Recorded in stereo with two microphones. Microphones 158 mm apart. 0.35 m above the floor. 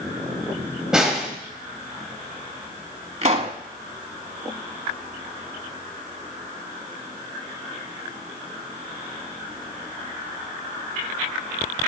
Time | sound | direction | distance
0.9 | a snare drum | 5° right (ahead or behind) | 1.7 m
3.2 | a pop | 45° right (ahead or behind) | 0.9 m